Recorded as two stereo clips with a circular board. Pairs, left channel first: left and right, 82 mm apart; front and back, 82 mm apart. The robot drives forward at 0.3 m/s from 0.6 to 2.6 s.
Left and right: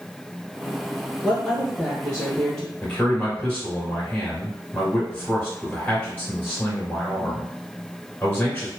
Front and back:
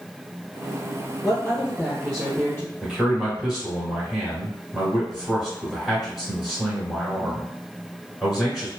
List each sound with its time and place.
1.2 s a woman speaking: 25° left, 1.9 m; by 2.7 s 40° left, 1.7 m
2.8 s a man speaking: 105° left, 1.4 m